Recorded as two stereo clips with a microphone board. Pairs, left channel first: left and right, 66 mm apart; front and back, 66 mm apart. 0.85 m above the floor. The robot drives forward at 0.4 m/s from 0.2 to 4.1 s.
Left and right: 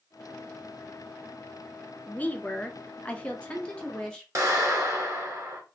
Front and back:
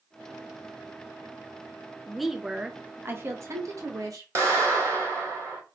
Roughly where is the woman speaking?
Left.